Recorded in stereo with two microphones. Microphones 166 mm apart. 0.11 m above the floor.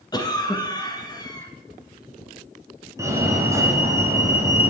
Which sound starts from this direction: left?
A cough, at 0.1 s.